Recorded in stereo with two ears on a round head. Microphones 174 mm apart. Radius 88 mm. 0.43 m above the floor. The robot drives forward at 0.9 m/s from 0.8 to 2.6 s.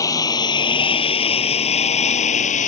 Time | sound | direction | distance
0.0 | a lawn mower | 20° left (ahead or behind) | ?